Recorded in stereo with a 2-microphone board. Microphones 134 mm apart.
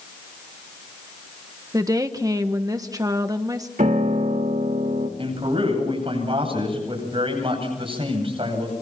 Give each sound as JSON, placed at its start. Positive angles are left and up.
{"t": 1.7, "sound": "a woman speaking", "side_deg": -25, "distance_m": 1.2}
{"t": 3.8, "sound": "a piano", "side_deg": -75, "distance_m": 3.0}
{"t": 5.2, "sound": "a man speaking", "side_deg": -45, "distance_m": 9.5}